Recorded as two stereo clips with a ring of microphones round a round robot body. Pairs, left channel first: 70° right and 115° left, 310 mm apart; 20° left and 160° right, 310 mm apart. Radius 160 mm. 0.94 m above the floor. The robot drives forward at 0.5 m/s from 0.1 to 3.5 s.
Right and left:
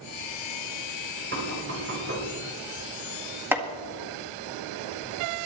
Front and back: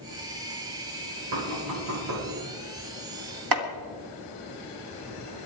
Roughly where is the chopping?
Behind.